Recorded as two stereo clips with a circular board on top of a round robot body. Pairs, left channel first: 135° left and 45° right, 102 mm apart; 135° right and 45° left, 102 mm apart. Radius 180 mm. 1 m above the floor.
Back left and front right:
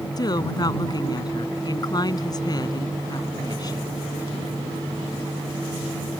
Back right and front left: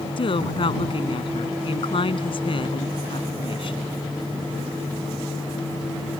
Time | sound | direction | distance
0.2 | a woman speaking | 170° right | ?